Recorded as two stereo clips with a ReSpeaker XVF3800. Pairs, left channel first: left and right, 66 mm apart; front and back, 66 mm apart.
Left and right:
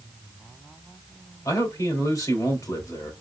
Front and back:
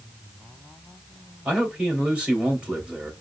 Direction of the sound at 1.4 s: 110° left.